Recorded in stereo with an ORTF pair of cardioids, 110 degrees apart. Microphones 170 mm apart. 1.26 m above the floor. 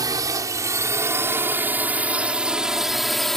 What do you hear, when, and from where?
0.0 s a drone: 20° right; by 3.4 s straight ahead